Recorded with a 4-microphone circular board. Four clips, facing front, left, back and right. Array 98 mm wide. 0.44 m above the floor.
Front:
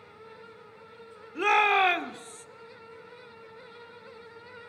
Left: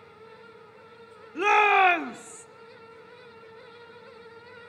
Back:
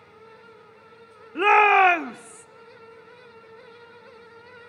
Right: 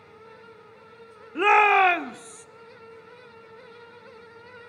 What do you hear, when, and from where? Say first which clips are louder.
1.4 s a shout: right 2 dB, back 7 dB; 145° right, 0.8 m; by 2.5 s 145° left, 0.8 m